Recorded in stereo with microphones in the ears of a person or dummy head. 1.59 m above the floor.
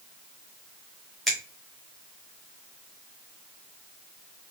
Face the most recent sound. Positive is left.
turn(degrees=0)  # may be behind; listen again after turning